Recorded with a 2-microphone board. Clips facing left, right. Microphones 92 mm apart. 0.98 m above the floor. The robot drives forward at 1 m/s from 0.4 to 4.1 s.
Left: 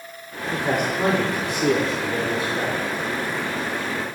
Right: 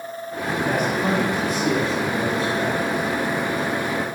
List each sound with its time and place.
0.5 s a man speaking: 65° left (ahead or behind), 3 m; by 2.8 s 70° left (ahead or behind), 3 m